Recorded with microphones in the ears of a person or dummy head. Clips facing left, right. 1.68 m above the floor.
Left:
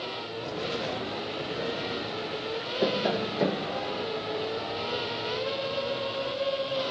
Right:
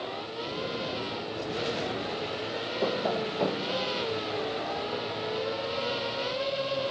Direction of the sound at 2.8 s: 15° left (ahead or behind).